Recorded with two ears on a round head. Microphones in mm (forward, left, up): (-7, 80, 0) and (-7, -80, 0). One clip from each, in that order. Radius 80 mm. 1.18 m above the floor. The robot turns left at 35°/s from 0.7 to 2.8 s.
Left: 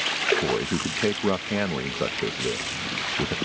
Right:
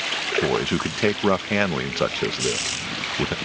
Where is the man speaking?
70° right; by 3.4 s 140° right.